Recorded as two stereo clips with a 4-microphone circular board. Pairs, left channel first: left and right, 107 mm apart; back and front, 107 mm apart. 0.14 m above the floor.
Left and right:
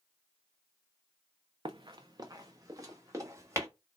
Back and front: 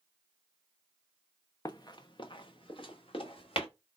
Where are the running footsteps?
130° right, 0.6 m; by 3.7 s 150° right, 1.6 m.